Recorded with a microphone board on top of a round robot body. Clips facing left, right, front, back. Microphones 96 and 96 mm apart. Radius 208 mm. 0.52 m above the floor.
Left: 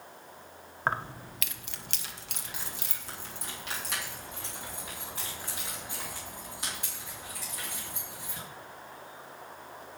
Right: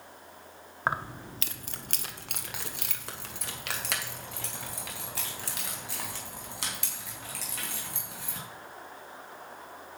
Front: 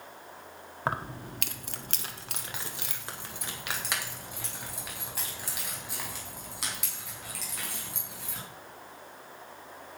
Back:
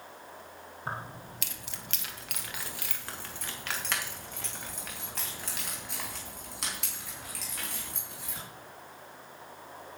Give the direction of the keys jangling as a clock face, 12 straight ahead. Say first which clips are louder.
Even, front 6 dB; 12 o'clock.